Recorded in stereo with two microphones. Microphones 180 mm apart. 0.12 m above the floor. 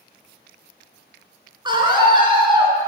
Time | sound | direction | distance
1.6 | a scream | 25° right (ahead or behind) | 1.3 m